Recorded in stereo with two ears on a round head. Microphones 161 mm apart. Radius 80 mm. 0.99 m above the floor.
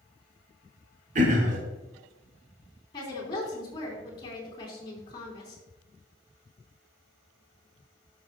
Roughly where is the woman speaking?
Left.